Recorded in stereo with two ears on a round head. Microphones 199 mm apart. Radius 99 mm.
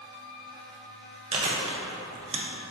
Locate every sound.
1.3 s chewing: 30° right (ahead or behind), 0.6 m